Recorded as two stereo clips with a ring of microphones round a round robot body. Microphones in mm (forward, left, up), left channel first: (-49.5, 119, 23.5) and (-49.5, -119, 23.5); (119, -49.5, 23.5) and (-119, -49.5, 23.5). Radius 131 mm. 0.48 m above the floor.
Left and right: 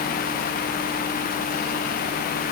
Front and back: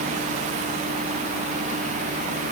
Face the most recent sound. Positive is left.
No sound to turn to.